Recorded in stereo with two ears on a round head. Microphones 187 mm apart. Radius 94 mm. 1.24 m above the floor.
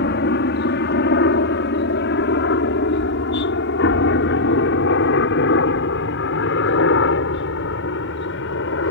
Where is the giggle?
I don't hear a giggle.